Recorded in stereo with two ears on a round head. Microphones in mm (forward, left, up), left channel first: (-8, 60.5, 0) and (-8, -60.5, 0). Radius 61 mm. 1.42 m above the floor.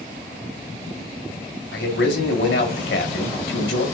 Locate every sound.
1.7 s a man speaking: 80° left, 1.5 m